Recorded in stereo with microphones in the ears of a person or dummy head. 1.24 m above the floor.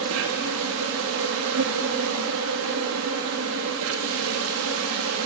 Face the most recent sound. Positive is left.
turn(degrees=-75)  # may be behind; listen again after turning